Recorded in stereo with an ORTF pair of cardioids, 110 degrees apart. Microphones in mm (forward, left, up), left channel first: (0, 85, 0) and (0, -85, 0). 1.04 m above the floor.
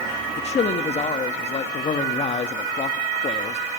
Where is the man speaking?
40° left, 1.3 m.